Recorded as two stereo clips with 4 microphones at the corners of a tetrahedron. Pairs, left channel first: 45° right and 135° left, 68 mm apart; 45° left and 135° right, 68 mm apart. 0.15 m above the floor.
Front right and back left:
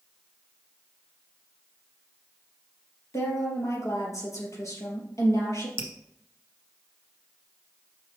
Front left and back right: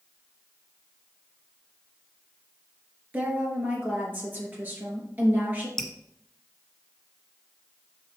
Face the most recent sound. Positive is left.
turn(degrees=120)